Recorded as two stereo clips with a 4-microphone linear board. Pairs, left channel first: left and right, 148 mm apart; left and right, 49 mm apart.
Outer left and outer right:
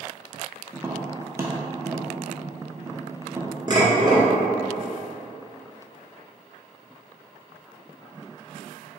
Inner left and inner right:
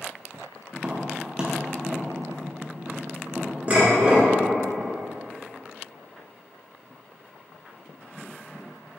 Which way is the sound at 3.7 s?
30° right (ahead or behind).